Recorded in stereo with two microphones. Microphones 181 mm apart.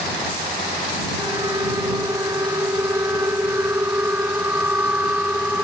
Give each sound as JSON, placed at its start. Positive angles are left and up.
{"t": 1.2, "sound": "a siren", "side_deg": -20}